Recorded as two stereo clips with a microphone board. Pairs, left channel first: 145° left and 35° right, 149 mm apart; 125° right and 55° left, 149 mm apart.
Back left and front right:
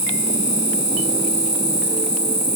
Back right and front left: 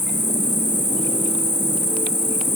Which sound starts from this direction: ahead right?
An insect, at 0.0 s.